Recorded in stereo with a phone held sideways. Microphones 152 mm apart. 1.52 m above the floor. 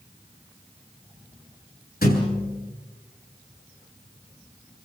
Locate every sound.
2.0 s a thud: 80° left, 7 m